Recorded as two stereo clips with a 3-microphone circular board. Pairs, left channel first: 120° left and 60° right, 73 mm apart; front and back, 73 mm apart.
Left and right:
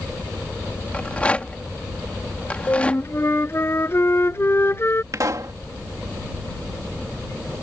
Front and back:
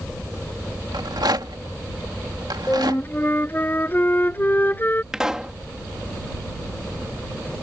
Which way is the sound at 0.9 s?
170° right.